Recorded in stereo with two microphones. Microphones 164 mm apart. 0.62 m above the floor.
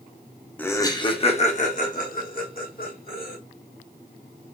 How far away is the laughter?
About 0.7 m.